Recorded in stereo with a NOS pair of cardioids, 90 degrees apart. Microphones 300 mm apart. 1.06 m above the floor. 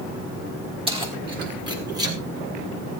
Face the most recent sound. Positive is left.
turn(degrees=-10)